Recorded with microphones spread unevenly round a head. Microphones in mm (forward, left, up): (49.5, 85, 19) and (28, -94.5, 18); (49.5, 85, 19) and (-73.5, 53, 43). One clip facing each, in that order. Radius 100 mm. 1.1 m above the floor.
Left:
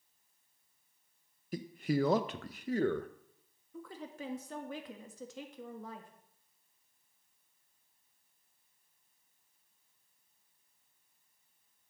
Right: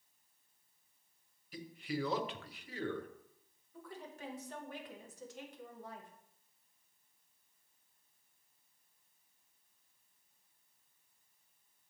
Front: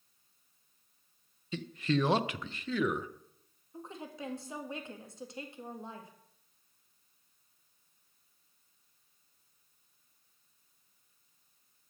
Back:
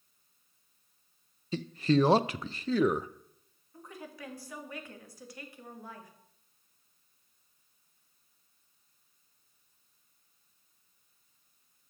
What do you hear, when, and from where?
1.5 s a man speaking: 135° left, 0.6 m
3.7 s a woman speaking: 80° left, 1.6 m